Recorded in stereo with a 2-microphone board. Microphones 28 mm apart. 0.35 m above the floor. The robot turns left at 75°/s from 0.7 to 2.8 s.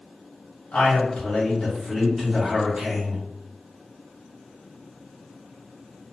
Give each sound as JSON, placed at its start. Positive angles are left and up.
{"t": 0.7, "sound": "a man speaking", "azimuth_deg": 105, "distance_m": 1.4}